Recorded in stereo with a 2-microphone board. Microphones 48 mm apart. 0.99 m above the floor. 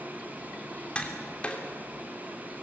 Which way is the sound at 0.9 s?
20° left (ahead or behind).